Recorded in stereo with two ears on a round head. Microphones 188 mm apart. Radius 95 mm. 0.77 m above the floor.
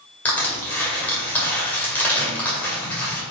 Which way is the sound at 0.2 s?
10° left (ahead or behind).